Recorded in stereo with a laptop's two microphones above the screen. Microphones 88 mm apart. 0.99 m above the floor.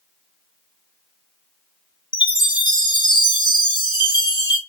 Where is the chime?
65° left (ahead or behind), 1.0 m.